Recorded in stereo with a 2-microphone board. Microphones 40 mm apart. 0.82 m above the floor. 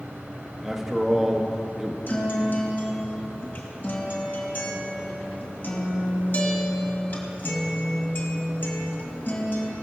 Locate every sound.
0.6 s a man speaking: 5° right (ahead or behind), 1.2 m
2.1 s a guitar: 50° left (ahead or behind), 2 m